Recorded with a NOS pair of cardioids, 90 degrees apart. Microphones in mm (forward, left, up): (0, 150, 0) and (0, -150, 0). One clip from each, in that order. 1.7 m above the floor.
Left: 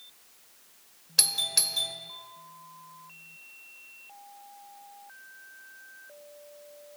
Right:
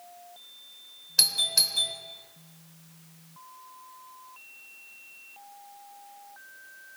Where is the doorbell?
15° left, 0.8 m.